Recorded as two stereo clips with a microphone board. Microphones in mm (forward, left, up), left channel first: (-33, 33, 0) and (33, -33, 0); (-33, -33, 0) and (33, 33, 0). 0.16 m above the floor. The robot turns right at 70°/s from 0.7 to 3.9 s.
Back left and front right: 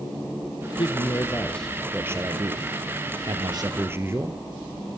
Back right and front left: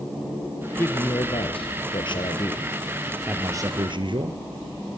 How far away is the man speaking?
About 3 m.